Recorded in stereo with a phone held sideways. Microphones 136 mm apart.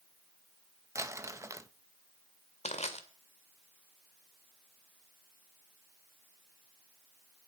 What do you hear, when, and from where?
0.9 s crumpling: 20° right (ahead or behind), 0.7 m
2.6 s crushing: 50° left (ahead or behind), 2 m